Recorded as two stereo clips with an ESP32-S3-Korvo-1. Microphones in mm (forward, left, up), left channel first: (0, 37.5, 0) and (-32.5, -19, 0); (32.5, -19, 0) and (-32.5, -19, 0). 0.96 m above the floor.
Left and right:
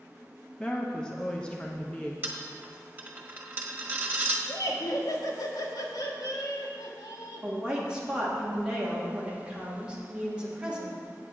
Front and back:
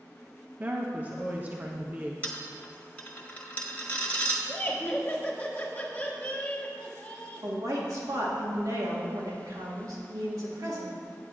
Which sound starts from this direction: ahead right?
A dropped coin, at 2.2 s.